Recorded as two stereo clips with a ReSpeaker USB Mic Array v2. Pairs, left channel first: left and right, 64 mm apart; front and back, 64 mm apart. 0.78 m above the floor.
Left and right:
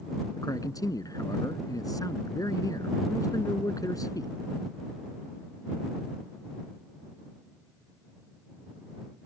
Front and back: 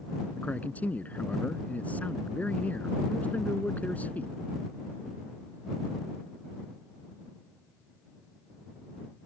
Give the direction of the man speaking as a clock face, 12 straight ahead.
10 o'clock.